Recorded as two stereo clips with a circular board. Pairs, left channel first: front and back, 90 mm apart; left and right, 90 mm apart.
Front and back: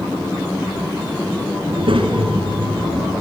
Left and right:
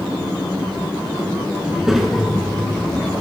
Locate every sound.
1.7 s a child speaking: 170° right, 3.5 m; by 3.1 s 170° left, 5.5 m